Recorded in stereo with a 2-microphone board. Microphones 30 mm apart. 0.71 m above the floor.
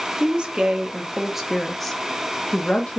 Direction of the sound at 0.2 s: 35° right (ahead or behind).